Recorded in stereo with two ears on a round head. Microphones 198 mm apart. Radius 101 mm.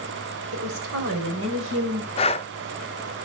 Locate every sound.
0.5 s a woman speaking: 75° right (ahead or behind), 4 m; by 2.1 s 65° right (ahead or behind), 5 m
2.2 s breathing: 25° left (ahead or behind), 0.5 m